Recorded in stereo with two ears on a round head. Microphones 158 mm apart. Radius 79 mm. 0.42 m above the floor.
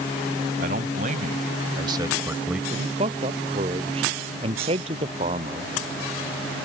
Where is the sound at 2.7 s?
35° right (ahead or behind).